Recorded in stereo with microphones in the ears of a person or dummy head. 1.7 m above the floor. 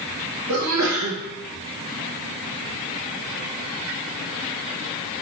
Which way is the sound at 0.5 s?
70° right (ahead or behind).